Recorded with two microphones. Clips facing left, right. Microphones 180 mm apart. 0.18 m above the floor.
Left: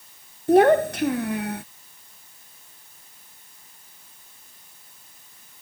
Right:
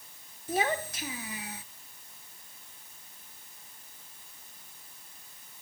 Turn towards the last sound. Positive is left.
turn(degrees=65)  # may be behind; listen again after turning